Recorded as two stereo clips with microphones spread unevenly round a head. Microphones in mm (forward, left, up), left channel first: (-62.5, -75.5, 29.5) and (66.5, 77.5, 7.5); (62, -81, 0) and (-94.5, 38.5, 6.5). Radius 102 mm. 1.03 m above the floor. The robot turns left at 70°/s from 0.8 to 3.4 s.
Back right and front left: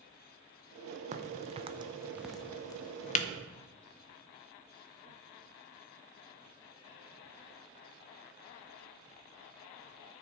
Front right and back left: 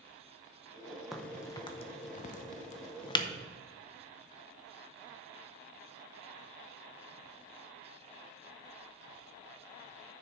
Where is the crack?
50° left, 0.6 m; by 3.3 s 100° right, 0.6 m.